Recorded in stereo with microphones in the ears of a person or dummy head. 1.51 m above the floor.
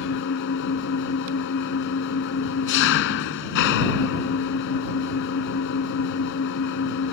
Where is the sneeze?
No sneeze in this recording.